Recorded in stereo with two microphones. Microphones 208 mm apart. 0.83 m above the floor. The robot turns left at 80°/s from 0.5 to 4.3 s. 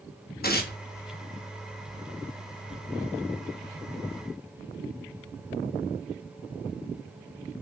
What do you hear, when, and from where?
0.4 s tearing paper: 45° left (ahead or behind), 1.3 m; by 0.8 s 55° left (ahead or behind), 1.3 m